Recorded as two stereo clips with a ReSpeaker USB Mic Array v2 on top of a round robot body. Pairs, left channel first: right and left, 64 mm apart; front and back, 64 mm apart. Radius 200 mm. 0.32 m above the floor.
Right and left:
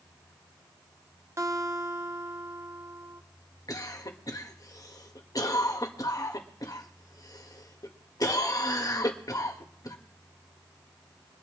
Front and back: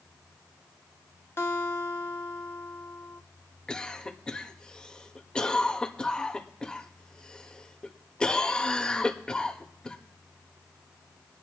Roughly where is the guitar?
Ahead left.